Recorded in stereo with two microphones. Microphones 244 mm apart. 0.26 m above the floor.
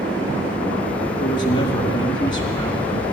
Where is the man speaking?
20° left (ahead or behind), 2.0 m.